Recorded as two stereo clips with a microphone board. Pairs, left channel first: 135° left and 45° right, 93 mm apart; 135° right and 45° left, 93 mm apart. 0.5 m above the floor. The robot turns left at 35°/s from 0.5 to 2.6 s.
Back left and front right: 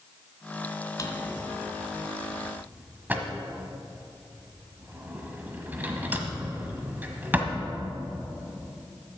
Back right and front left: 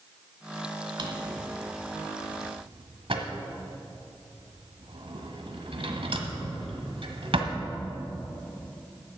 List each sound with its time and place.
1.0 s a drawer: 85° left, 1.1 m; by 7.5 s 25° left, 1.1 m